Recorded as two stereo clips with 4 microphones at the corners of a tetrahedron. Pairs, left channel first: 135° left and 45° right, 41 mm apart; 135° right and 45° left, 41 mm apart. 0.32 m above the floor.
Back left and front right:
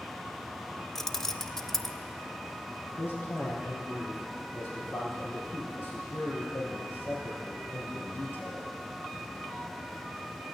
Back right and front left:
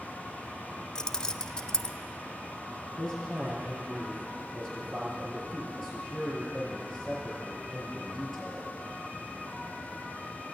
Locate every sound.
0.9 s keys jangling: 165° right, 0.5 m
3.0 s a man speaking: 140° left, 5.5 m